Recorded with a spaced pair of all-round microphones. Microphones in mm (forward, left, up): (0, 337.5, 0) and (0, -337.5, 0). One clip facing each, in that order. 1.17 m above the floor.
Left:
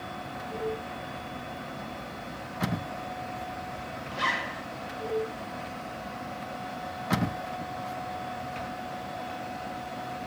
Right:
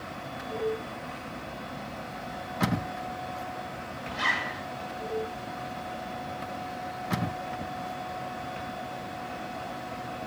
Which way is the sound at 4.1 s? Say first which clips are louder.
Left 1 dB; 5° left (ahead or behind).